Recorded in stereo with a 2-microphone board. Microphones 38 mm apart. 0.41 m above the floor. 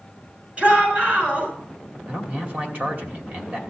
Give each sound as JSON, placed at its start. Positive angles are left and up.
{"t": 0.6, "sound": "a shout", "side_deg": -40, "distance_m": 6.0}
{"t": 2.1, "sound": "a man speaking", "side_deg": -45, "distance_m": 2.0}